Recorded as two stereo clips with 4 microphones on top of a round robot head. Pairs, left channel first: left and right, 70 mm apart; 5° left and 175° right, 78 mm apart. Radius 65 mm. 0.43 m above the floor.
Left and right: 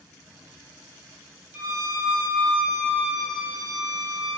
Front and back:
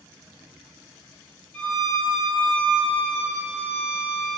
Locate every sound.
1.5 s a violin: 50° right, 1.3 m